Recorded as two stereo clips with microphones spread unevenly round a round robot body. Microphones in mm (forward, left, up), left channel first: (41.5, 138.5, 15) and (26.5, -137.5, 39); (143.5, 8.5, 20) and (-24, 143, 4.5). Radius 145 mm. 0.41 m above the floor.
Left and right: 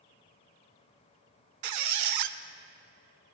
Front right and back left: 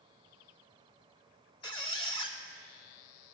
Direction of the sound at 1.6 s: 110° right.